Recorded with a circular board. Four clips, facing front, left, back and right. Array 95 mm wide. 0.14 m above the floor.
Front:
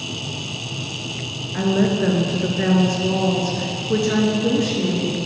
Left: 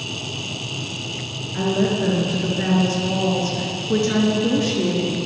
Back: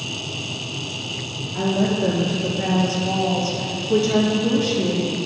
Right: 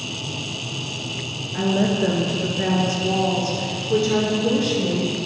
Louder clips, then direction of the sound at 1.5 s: Even, front 2 dB; 5° right.